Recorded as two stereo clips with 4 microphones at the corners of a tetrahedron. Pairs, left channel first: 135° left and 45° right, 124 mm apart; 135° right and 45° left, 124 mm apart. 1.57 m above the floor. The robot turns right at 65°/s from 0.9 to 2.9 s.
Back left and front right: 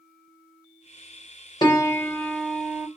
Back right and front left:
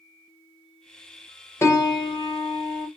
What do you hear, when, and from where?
1.6 s a piano: 170° left, 0.8 m; by 2.9 s 110° right, 0.8 m